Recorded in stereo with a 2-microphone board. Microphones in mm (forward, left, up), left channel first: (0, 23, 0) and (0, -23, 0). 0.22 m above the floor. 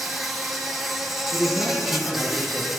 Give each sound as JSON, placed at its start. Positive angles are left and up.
{"t": 0.0, "sound": "an insect", "side_deg": 0, "distance_m": 1.5}
{"t": 1.3, "sound": "a man speaking", "side_deg": -5, "distance_m": 4.0}